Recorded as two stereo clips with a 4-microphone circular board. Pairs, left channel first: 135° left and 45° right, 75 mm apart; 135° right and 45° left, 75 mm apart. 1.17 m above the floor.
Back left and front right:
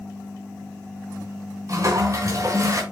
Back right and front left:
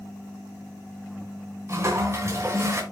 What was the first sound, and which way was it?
A toilet flushing, 5° right.